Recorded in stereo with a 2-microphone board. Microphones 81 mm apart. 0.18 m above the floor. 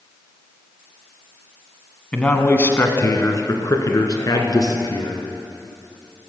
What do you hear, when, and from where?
2.1 s a man speaking: 15° left (ahead or behind), 1.1 m; by 5.2 s 50° left (ahead or behind), 2.5 m